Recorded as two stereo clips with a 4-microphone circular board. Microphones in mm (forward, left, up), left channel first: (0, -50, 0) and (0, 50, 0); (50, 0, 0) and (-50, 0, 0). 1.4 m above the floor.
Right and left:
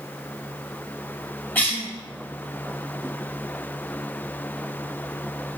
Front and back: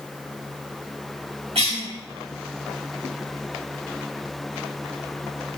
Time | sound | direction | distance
1.6 | a cough | 165° right | 1.9 m